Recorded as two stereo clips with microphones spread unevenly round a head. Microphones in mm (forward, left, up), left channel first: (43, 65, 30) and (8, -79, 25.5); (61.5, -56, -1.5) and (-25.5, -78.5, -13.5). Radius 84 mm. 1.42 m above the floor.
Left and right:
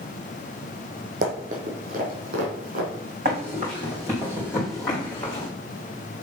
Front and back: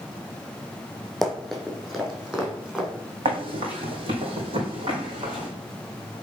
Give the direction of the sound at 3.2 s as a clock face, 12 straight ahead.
5 o'clock.